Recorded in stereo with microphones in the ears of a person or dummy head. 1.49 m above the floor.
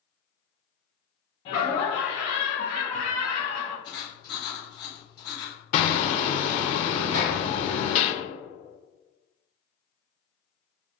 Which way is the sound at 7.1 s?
40° right (ahead or behind).